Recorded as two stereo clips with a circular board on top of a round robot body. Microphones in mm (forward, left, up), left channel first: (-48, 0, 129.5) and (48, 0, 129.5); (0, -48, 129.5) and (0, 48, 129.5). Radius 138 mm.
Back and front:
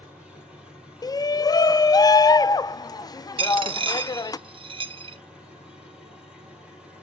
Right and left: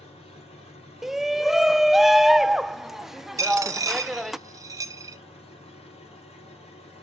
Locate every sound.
0.0 s an engine running: 85° right, 3.5 m
1.0 s a shout: 175° left, 0.7 m
3.4 s a dropped coin: 30° left, 1.0 m